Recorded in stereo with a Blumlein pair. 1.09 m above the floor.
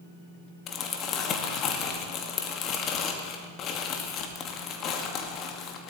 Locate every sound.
0.7 s crumpling: 30° left, 2.0 m